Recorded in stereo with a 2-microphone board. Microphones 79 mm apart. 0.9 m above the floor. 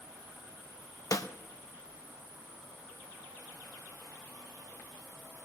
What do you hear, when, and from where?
1.1 s a snare drum: 50° left (ahead or behind), 0.7 m